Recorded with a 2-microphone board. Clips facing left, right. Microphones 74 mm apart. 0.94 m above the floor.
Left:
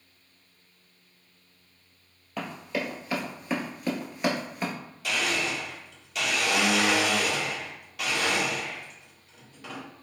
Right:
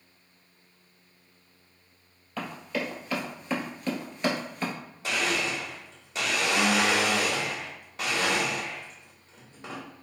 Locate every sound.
2.4 s running footsteps: 10° left (ahead or behind), 1.3 m; by 4.7 s 5° left (ahead or behind), 0.9 m
5.0 s a blender: 30° right (ahead or behind), 0.9 m